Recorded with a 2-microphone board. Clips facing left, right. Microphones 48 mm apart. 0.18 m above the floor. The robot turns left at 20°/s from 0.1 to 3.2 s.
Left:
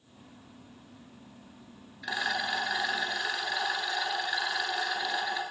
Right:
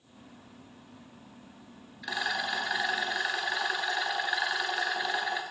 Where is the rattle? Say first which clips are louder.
Left 1 dB; 5° left (ahead or behind), 0.6 m; by 5.4 s 20° right (ahead or behind), 0.6 m.